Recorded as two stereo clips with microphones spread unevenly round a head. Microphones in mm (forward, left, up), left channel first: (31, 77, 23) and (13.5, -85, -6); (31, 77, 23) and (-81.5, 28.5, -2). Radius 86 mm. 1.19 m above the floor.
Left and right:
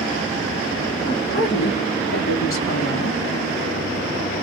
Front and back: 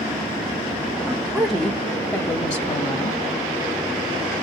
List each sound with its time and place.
1.1 s a woman speaking: 125° left, 1.8 m; by 3.2 s 70° left, 1.8 m